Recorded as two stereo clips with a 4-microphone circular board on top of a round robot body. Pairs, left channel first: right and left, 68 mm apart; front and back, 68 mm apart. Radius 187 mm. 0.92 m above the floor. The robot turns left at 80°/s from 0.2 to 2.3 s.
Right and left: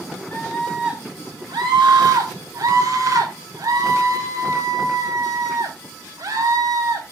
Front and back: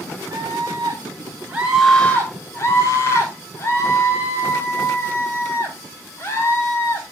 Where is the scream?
145° right, 4 m; by 7.0 s 55° left, 4 m.